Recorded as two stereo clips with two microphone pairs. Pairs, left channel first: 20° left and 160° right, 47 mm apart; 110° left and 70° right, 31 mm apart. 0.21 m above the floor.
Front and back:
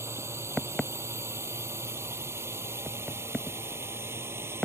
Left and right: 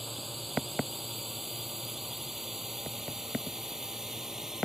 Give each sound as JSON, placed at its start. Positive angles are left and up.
{"t": 0.0, "sound": "a drone", "azimuth_deg": -155}